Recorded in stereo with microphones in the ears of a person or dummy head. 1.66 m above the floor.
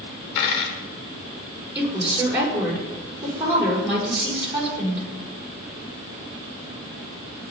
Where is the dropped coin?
55° left (ahead or behind), 2 m.